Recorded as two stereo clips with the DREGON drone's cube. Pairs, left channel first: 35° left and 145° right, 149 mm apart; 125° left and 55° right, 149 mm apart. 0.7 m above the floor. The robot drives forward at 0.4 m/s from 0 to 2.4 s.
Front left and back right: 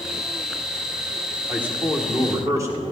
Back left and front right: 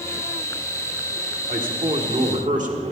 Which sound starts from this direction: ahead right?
A man speaking, at 1.5 s.